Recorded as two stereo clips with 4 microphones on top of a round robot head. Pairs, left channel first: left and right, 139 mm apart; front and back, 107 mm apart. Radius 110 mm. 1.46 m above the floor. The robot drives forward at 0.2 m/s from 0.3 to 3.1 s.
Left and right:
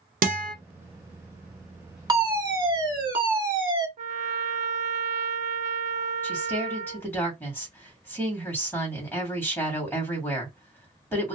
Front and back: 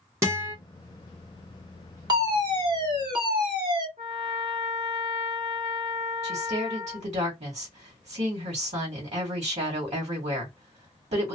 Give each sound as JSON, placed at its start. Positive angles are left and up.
{"t": 0.2, "sound": "a guitar", "azimuth_deg": -115, "distance_m": 0.8}
{"t": 2.1, "sound": "a fire alarm", "azimuth_deg": -145, "distance_m": 1.7}
{"t": 4.0, "sound": "a trumpet", "azimuth_deg": -120, "distance_m": 0.5}
{"t": 6.2, "sound": "a woman speaking", "azimuth_deg": 165, "distance_m": 1.5}